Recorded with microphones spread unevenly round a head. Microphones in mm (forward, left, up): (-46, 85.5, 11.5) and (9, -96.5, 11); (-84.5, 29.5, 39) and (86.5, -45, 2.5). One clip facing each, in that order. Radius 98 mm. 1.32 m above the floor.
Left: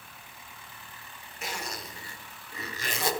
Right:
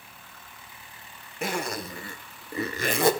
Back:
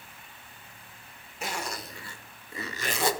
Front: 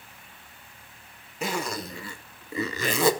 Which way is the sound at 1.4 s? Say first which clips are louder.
Right 9 dB, front 6 dB; 25° right.